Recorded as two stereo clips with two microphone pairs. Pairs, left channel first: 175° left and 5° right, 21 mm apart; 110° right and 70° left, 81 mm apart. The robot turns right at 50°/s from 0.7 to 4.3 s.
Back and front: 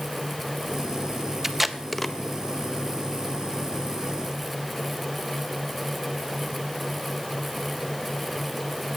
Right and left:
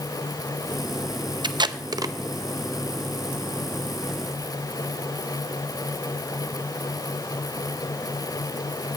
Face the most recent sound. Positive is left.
turn(degrees=-145)